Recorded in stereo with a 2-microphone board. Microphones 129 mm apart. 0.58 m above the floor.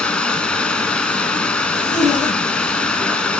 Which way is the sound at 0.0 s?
10° left (ahead or behind).